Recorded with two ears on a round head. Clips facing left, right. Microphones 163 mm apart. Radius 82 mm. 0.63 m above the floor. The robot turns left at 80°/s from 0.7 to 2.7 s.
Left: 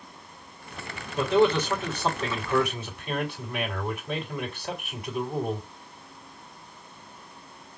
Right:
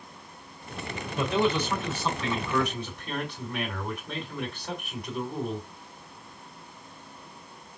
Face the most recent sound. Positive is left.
turn(degrees=5)